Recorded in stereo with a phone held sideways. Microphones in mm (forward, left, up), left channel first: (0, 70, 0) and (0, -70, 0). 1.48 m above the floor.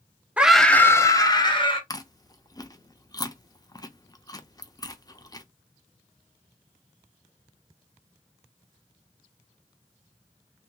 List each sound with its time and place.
0.4 s a scream: 10° right (ahead or behind), 0.6 m; by 1.8 s 35° left (ahead or behind), 1.3 m
1.9 s chewing: 25° left (ahead or behind), 0.5 m